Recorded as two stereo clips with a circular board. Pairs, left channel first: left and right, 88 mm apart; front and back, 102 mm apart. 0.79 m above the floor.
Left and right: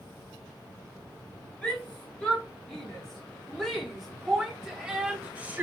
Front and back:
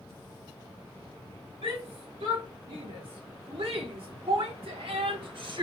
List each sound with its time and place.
1.6 s a shout: 165° left, 2.5 m; by 5.6 s 150° right, 0.8 m